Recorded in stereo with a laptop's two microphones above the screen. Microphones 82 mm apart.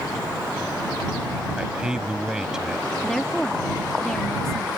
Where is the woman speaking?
5° left (ahead or behind).